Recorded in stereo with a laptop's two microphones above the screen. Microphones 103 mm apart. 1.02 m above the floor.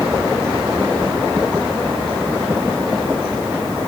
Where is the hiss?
No hiss in this recording.